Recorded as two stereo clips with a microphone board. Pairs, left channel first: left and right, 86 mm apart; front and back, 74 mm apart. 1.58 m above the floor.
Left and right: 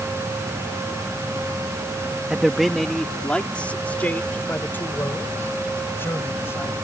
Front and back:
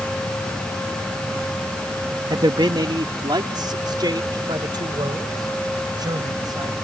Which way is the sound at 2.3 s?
170° right.